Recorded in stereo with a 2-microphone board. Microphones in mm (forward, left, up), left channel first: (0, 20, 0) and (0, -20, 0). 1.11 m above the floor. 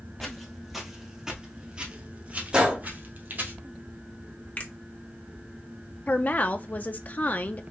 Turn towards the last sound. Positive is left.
turn(degrees=40)  # may be behind; listen again after turning